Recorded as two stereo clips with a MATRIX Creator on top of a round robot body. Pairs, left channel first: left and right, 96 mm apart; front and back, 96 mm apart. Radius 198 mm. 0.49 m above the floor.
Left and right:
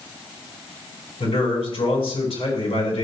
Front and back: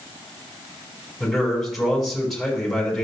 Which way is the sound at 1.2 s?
90° left.